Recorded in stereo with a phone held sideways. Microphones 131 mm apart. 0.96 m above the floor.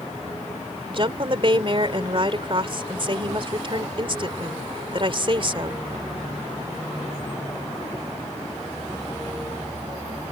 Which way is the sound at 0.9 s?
45° right (ahead or behind).